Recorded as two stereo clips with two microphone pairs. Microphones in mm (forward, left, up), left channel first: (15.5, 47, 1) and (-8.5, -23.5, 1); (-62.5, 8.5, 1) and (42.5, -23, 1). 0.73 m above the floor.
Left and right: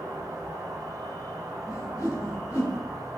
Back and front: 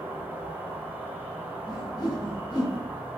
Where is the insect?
90° right, 1.0 m.